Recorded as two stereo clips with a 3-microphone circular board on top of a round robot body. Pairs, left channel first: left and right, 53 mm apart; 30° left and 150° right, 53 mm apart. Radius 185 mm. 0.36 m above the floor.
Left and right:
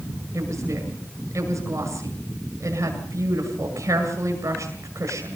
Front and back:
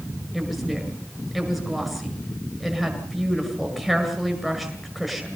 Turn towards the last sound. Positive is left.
turn(degrees=-65)